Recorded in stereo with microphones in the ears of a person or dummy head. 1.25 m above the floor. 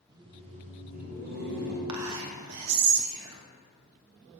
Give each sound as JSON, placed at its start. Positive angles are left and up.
{"t": 0.1, "sound": "laughter", "side_deg": -20, "distance_m": 0.7}
{"t": 1.9, "sound": "whispering", "side_deg": -80, "distance_m": 1.0}